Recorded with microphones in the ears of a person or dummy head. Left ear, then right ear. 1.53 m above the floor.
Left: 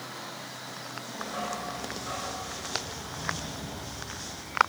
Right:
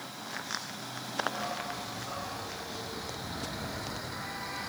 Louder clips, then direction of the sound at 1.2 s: Even; 55° left (ahead or behind).